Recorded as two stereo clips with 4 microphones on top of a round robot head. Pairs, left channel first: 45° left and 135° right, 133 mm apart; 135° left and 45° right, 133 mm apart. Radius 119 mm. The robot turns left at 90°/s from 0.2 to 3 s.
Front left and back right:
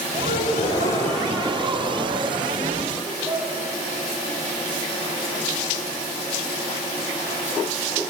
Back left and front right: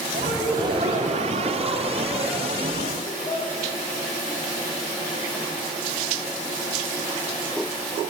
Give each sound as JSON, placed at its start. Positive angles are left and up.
{"t": 0.2, "sound": "a gasp", "azimuth_deg": 40, "distance_m": 1.4}